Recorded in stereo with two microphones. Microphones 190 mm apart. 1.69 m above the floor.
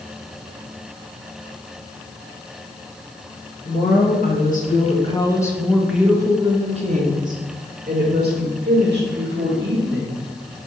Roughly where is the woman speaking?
Left.